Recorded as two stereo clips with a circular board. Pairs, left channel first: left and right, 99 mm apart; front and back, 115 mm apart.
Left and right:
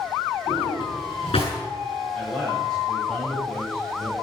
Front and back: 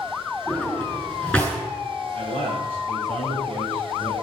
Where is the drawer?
75° left, 7 m.